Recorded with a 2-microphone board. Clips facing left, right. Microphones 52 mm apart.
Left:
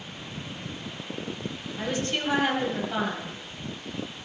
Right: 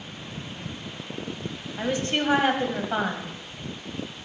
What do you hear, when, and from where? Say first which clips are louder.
1.8 s a woman speaking: right 3 dB; 35° right (ahead or behind), 2.5 m